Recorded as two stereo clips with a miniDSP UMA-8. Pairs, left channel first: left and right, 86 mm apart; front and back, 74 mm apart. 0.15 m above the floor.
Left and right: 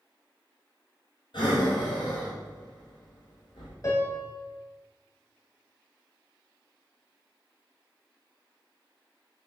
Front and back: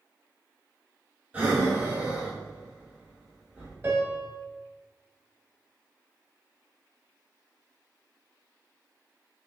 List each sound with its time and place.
1.3 s breathing: 105° left, 1.9 m
3.8 s a piano: 125° left, 1.4 m